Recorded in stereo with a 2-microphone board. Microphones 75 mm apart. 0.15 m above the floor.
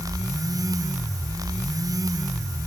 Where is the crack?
I don't hear a crack.